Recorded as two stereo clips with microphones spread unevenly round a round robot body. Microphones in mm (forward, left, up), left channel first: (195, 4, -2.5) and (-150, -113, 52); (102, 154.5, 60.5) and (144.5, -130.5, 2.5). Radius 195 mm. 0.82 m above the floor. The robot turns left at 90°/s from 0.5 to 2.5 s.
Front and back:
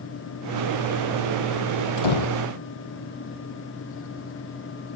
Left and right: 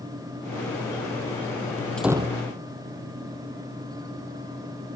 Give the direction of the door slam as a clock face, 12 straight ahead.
12 o'clock.